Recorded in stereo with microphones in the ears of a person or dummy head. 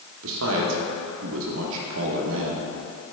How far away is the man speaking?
About 1.1 m.